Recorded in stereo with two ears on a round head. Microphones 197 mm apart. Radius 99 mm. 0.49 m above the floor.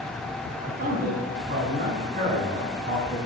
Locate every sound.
0.6 s a man speaking: 35° right (ahead or behind), 4 m